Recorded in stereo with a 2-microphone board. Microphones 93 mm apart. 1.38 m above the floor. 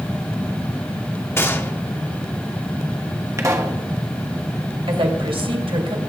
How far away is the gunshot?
About 1.1 m.